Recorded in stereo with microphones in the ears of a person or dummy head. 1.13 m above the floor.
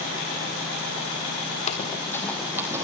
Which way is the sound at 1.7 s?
35° left (ahead or behind).